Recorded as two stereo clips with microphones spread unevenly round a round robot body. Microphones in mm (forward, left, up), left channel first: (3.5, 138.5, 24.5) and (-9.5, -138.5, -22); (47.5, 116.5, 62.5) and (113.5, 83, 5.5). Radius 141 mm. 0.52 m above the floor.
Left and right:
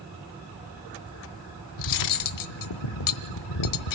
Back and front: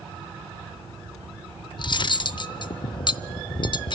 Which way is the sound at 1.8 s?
110° left.